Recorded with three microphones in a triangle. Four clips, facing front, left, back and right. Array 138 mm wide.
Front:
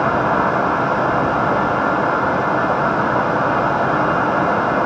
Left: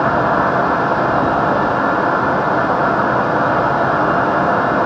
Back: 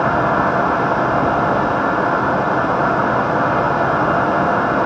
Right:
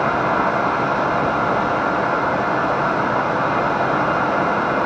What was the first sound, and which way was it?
Only background noise.